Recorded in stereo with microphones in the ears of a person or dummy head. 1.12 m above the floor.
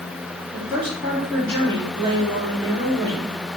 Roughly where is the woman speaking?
Right.